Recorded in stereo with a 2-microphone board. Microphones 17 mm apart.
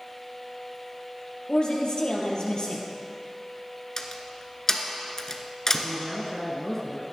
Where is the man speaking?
25° left (ahead or behind), 1.6 m.